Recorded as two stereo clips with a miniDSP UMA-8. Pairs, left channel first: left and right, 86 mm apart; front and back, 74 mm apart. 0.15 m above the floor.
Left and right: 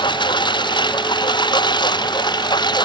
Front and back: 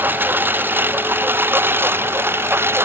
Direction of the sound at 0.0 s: 115° left.